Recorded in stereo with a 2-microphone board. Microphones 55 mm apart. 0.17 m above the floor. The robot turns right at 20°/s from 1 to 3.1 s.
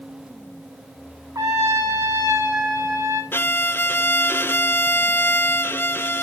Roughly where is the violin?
Left.